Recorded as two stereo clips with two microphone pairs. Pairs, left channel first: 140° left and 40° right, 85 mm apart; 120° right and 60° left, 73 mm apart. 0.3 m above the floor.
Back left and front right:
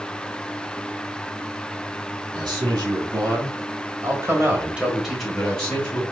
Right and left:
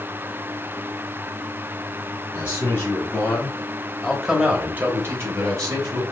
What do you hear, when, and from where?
2.3 s a man speaking: 65° right, 2 m; by 6.0 s 75° left, 1.5 m